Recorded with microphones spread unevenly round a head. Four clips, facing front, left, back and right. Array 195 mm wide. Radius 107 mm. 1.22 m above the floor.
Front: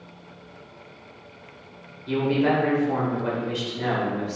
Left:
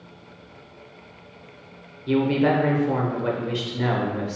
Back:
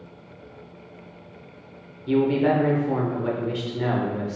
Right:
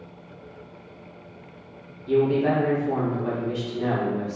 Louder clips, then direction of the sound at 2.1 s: Even, back 2 dB; 100° left.